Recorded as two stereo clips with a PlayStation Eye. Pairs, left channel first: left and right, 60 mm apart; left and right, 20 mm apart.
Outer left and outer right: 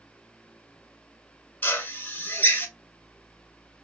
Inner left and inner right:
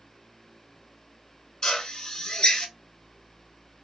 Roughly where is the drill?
Left.